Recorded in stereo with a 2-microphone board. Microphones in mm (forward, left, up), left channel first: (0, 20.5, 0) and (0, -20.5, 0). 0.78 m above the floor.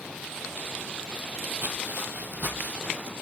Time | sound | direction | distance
1.6 | footsteps | 55° right (ahead or behind) | 1.6 m